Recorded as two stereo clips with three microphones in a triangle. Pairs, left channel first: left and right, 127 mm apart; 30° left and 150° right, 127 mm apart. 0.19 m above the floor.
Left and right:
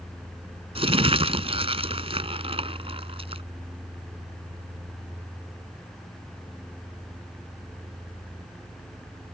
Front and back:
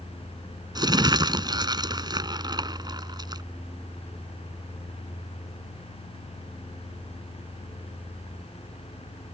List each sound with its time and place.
0.8 s crumpling: 105° right